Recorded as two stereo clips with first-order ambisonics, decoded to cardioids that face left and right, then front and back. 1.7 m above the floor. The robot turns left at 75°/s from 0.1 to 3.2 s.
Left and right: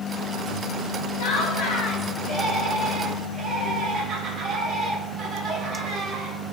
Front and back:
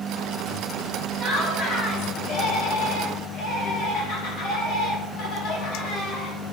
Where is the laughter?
115° left, 1.7 m; by 6.4 s 35° right, 1.7 m.